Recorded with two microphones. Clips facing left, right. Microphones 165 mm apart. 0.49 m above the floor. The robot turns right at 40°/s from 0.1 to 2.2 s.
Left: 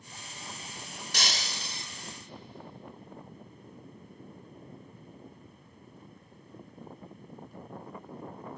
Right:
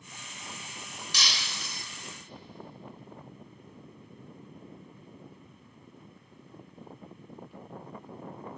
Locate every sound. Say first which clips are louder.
1.1 s breaking glass: left 3 dB; 50° left (ahead or behind), 1.0 m; by 1.9 s 25° left (ahead or behind), 1.0 m